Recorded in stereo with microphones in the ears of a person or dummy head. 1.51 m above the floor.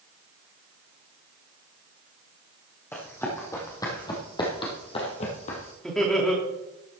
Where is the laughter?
5° left (ahead or behind), 3 m.